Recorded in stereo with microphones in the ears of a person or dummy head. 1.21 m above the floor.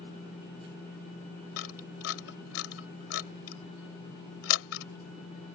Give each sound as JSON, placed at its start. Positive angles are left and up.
{"t": 1.6, "sound": "a camera shutter", "side_deg": 85}